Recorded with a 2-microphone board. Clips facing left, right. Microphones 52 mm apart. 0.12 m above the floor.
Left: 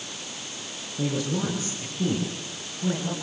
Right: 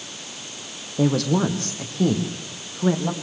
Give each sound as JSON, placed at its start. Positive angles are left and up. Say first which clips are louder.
{"t": 1.0, "sound": "a woman speaking", "louder": "right 7 dB", "side_deg": -70, "distance_m": 5.0}